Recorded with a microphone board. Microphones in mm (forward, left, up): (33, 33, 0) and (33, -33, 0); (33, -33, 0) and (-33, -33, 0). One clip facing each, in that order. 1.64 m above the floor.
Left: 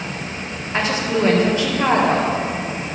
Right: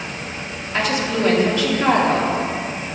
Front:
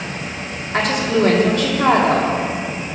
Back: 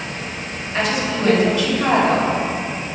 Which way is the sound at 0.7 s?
35° left.